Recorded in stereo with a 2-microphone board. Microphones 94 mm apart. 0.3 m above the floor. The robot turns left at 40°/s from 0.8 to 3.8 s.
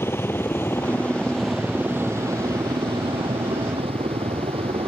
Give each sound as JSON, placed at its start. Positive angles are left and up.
{"t": 0.0, "sound": "a helicopter", "side_deg": 25}